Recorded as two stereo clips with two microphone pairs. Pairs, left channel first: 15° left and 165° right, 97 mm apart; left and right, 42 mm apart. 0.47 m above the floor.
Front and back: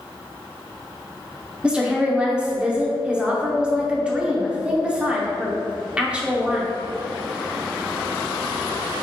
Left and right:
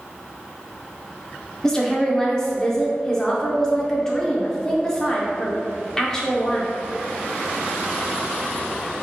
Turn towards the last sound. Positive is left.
turn(degrees=140)